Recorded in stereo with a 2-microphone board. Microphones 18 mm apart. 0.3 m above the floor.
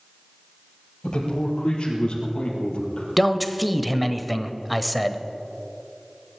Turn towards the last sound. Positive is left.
turn(degrees=0)  # may be behind; listen again after turning